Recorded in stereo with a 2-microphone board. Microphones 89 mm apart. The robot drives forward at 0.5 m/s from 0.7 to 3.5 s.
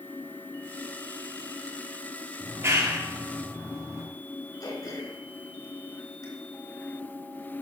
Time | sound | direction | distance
2.4 | a clap | 30° right (ahead or behind) | 5.5 m
4.6 | throat clearing | 50° left (ahead or behind) | 4 m